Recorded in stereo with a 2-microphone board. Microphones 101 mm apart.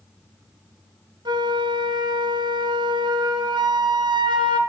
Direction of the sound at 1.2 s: 45° right (ahead or behind).